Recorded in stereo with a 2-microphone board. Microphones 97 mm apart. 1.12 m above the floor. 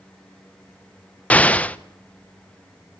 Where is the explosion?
15° left (ahead or behind), 0.8 m.